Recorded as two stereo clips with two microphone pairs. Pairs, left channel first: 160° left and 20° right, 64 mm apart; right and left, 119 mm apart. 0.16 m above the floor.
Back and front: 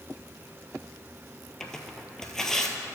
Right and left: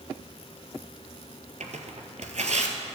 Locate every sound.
1.6 s tearing paper: 75° left, 1.0 m